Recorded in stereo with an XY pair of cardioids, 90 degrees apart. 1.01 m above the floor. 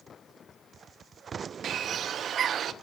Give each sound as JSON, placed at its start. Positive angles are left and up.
{"t": 1.6, "sound": "a bird", "azimuth_deg": -65, "distance_m": 0.8}